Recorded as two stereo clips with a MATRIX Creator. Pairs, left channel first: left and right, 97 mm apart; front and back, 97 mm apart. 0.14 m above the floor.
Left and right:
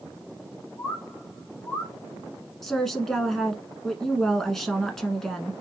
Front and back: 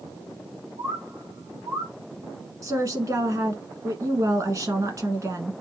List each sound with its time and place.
0.8 s a bird: 150° left, 1.6 m
2.6 s a woman speaking: 170° left, 1.2 m